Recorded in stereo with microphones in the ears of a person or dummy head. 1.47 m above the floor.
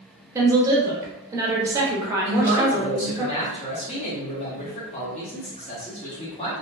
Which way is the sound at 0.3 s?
20° right (ahead or behind).